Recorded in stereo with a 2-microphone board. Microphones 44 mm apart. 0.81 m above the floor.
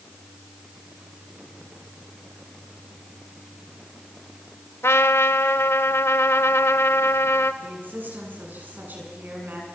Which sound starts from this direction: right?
A woman speaking, at 7.6 s.